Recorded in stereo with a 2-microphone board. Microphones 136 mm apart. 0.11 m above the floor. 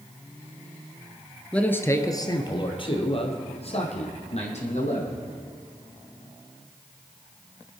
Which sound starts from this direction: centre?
A man speaking, at 1.5 s.